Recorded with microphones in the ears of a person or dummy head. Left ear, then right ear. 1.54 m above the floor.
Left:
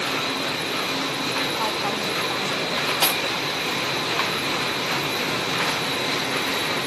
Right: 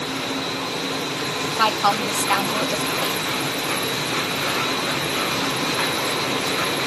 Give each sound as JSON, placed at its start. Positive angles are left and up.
{"t": 1.5, "sound": "a woman speaking", "side_deg": -65}
{"t": 3.0, "sound": "cutlery clinking", "side_deg": 45}